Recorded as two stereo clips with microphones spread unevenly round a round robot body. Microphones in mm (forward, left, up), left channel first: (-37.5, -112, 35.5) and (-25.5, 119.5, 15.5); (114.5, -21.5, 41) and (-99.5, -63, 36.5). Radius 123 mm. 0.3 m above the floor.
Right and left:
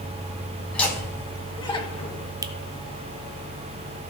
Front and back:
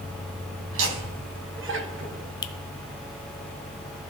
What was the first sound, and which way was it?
Laughter, straight behind.